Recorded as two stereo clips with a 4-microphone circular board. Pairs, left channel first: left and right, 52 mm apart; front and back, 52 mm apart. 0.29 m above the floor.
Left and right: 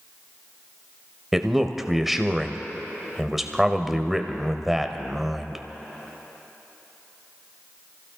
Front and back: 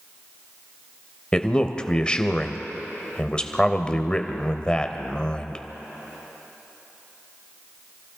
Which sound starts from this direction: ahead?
A man speaking, at 1.3 s.